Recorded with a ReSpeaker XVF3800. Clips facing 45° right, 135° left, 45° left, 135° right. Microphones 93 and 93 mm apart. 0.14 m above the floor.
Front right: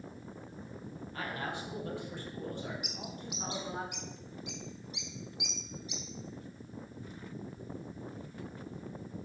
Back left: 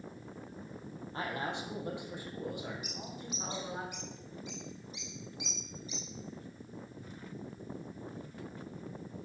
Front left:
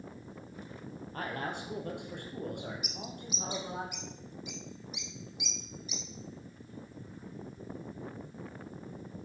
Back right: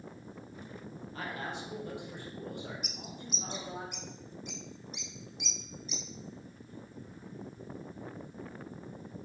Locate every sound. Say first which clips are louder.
1.1 s a man speaking: back left 2 dB, front left 2 dB; 75° left, 3 m; by 3.8 s 45° left, 5 m
2.8 s a bird: even, front left 2 dB; 40° right, 1.5 m